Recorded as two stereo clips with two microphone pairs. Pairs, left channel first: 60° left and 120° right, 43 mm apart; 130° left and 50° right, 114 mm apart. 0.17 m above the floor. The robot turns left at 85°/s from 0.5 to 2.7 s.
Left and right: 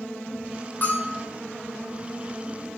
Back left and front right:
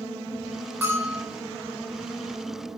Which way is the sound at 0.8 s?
25° left.